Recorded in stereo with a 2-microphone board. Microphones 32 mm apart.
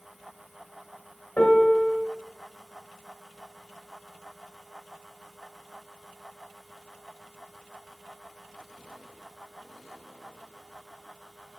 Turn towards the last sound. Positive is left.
turn(degrees=45)  # may be behind; listen again after turning